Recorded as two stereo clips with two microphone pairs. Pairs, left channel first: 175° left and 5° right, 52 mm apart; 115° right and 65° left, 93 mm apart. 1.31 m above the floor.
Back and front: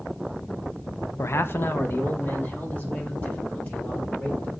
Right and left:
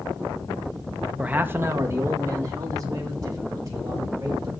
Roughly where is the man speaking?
Behind left.